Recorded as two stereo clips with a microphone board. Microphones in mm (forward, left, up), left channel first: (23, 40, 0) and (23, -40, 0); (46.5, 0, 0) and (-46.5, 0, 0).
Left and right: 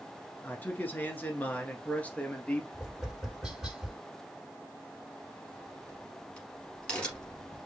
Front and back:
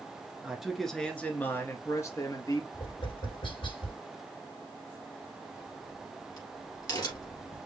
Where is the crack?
20° left, 2.5 m.